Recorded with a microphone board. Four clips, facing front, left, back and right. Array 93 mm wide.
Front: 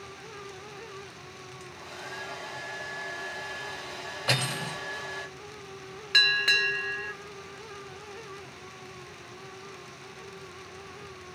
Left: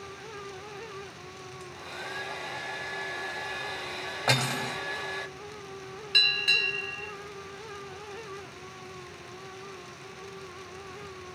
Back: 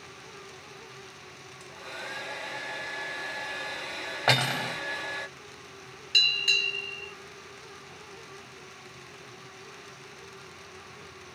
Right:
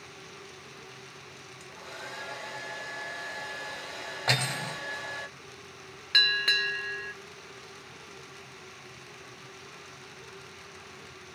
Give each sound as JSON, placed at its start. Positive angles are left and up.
{"t": 1.6, "sound": "a hair dryer", "azimuth_deg": 150, "distance_m": 2.0}
{"t": 4.3, "sound": "cutlery clinking", "azimuth_deg": 170, "distance_m": 1.6}
{"t": 6.1, "sound": "a bell", "azimuth_deg": -40, "distance_m": 0.7}